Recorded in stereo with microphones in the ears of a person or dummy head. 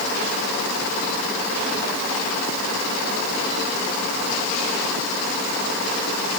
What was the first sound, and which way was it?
Only background noise.